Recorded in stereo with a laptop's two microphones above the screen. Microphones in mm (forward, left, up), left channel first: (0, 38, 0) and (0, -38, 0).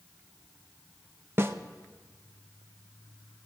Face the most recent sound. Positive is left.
turn(degrees=-35)  # may be behind; listen again after turning